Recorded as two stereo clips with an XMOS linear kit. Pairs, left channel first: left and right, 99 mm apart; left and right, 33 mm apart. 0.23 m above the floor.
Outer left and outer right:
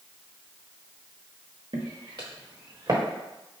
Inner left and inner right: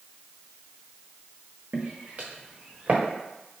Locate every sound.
1.7 s footsteps: 60° right (ahead or behind), 1.4 m; by 3.0 s 45° right (ahead or behind), 2.0 m